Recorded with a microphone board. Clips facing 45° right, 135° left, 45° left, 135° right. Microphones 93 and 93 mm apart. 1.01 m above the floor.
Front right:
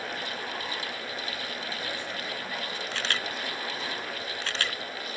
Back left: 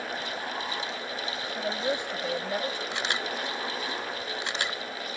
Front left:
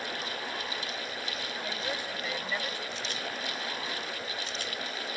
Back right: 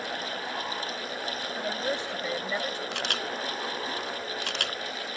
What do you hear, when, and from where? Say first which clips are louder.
1.6 s a woman speaking: back left 6 dB, back right 6 dB; 160° left; by 2.8 s 155° left
2.9 s a camera shutter: back left 2 dB, back right 5 dB; 155° right